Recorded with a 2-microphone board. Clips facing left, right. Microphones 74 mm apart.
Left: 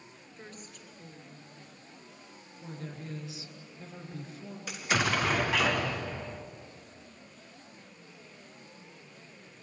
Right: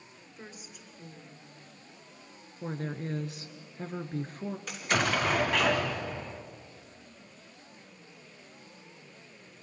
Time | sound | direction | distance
0.4 | a woman speaking | 5° right (ahead or behind) | 3 m
2.6 | a woman speaking | 50° right (ahead or behind) | 2 m
4.7 | an explosion | 5° left (ahead or behind) | 2 m